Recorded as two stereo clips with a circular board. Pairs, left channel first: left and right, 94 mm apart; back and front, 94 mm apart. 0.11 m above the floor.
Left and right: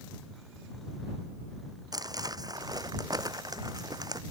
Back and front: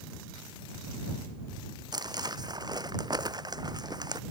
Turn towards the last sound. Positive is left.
turn(degrees=-45)